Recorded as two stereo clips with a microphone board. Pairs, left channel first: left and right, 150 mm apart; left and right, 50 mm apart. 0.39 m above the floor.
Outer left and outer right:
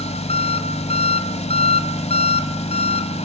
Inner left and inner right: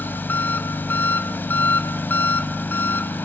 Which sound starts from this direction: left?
An engine running, at 0.0 s.